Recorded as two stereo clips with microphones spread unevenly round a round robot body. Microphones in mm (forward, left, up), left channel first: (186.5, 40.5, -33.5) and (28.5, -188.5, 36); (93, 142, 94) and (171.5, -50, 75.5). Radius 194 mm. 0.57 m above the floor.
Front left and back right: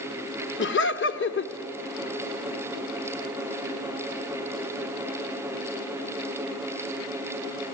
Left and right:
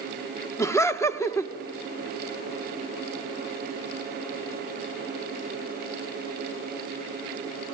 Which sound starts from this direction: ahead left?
Laughter, at 0.6 s.